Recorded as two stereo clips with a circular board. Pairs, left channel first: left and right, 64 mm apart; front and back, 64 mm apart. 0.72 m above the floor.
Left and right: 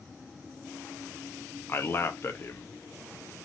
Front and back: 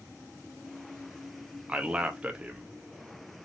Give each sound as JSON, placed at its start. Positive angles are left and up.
{"t": 1.7, "sound": "a man speaking", "azimuth_deg": 115, "distance_m": 0.6}